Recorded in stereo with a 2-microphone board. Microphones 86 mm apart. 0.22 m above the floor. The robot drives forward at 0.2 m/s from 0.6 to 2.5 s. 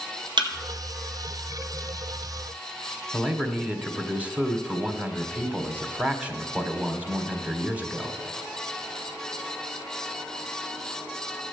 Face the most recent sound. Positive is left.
turn(degrees=-15)  # may be behind; listen again after turning